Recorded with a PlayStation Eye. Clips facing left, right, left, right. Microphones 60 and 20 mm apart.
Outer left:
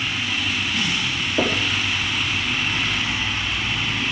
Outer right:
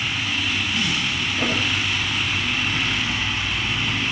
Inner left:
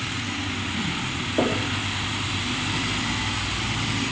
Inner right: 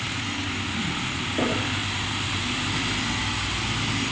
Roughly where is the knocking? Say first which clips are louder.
Outer left 3 dB, inner left 2 dB; left.